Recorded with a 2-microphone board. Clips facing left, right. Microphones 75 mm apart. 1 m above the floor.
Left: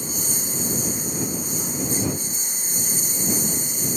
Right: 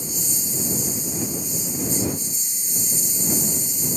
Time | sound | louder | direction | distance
0.0 | a lawn mower | left 2 dB | 55° left (ahead or behind) | ?